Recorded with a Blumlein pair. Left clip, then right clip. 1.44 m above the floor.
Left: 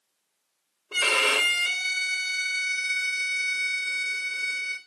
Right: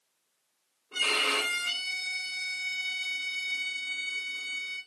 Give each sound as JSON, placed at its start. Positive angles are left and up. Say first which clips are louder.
{"t": 0.9, "sound": "a violin", "louder": "left 5 dB", "azimuth_deg": 30, "distance_m": 3.5}